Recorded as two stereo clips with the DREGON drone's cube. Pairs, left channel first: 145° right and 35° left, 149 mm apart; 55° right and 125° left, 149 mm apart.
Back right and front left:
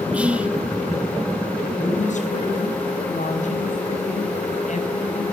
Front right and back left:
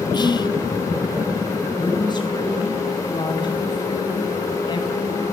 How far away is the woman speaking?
About 5.5 m.